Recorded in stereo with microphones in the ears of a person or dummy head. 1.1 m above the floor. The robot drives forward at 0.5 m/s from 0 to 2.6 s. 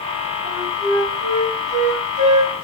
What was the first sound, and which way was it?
A flute, 40° right (ahead or behind).